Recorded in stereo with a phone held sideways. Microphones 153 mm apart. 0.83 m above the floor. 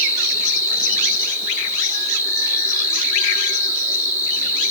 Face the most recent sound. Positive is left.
turn(degrees=15)  # may be behind; listen again after turning